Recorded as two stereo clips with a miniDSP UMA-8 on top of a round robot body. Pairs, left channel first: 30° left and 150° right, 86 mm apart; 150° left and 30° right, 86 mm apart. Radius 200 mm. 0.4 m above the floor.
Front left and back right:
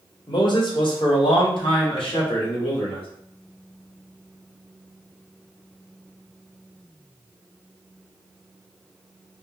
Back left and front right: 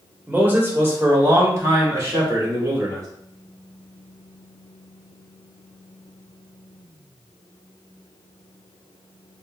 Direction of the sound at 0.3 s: 35° left.